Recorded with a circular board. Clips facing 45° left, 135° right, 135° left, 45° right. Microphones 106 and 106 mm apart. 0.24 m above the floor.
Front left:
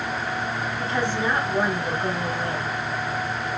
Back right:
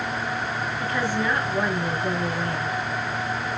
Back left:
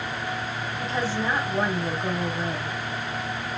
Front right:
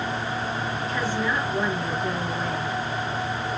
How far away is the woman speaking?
About 1.6 m.